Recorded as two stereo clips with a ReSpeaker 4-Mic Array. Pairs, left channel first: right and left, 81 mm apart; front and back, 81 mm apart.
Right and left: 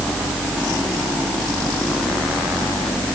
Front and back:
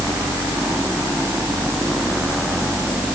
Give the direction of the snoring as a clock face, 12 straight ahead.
I don't hear snoring.